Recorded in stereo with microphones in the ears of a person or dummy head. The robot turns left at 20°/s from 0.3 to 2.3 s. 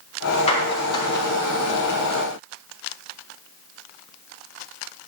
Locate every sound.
0.5 s a clap: 35° left (ahead or behind), 3.5 m; by 1.2 s 20° left (ahead or behind), 3.5 m